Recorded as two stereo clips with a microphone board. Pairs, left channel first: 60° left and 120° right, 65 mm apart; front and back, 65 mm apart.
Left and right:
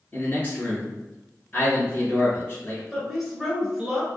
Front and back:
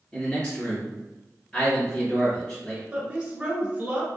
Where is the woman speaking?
165° left, 1.1 m.